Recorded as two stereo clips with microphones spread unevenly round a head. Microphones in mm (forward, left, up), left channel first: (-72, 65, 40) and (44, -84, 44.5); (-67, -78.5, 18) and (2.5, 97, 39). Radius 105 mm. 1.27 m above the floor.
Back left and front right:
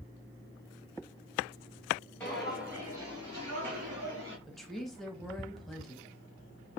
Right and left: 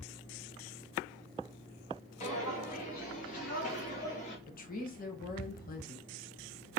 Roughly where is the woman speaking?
Behind right.